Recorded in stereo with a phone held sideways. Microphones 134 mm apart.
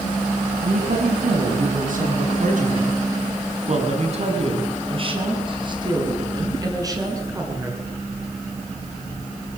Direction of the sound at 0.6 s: 80° right.